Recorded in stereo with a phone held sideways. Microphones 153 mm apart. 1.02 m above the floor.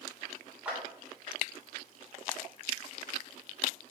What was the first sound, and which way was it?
A clap, 5° right (ahead or behind).